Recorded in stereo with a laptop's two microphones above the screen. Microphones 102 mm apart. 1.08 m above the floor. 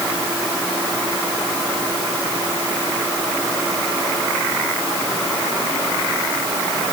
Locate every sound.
Only background noise.